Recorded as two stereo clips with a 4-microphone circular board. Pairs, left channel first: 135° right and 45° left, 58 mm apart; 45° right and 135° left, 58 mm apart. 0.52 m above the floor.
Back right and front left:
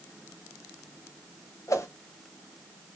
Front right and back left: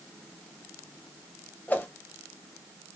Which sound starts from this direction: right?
A whoosh, at 1.7 s.